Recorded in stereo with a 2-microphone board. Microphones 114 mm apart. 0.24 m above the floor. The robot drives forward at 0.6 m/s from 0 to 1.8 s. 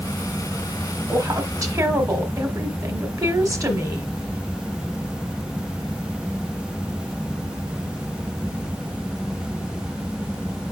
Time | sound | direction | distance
1.1 | a woman speaking | 30° right (ahead or behind) | 1.0 m